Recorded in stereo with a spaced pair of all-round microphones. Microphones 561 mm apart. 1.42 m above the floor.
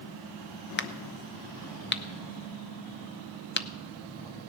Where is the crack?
20° left (ahead or behind), 0.5 m.